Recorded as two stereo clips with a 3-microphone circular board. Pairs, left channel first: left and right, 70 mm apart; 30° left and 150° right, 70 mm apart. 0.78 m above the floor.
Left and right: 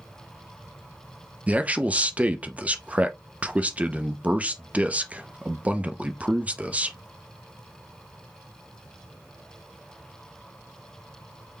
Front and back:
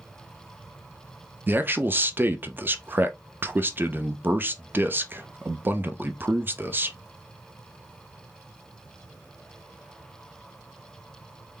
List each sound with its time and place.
1.5 s a man speaking: 135° right, 0.6 m